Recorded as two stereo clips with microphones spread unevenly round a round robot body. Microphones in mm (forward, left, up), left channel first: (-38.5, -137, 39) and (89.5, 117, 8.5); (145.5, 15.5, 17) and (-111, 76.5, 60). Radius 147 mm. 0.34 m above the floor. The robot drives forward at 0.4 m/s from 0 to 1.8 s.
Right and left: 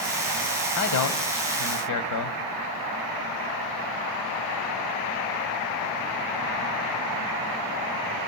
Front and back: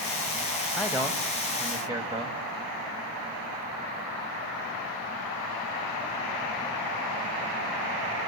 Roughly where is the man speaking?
Right.